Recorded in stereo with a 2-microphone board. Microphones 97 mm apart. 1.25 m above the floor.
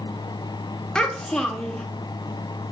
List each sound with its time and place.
0.9 s a child speaking: 5° left (ahead or behind), 0.7 m